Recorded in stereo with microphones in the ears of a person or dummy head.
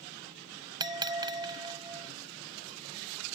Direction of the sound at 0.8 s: 25° right (ahead or behind).